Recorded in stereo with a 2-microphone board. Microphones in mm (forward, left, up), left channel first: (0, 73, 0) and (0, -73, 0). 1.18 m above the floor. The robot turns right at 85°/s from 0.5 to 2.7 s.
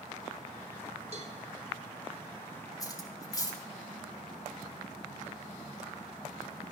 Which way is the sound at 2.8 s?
25° left (ahead or behind).